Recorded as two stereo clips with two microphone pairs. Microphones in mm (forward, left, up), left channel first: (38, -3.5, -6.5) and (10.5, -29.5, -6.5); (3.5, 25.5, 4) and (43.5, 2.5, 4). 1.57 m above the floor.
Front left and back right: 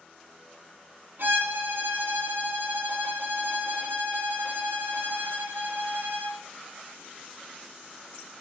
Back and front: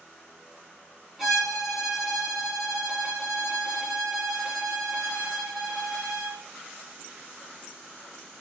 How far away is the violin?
About 4 m.